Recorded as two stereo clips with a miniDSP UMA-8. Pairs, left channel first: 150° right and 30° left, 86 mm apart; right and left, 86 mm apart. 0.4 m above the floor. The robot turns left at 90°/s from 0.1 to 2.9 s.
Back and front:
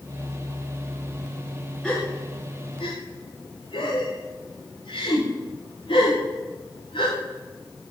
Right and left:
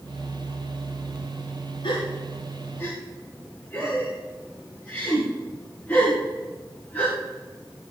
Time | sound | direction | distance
1.8 | a gasp | 65° right | 9 m